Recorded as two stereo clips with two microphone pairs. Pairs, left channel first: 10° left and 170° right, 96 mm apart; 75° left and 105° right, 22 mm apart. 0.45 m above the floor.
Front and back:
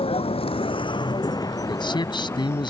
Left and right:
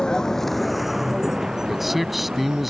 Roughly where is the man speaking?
Ahead.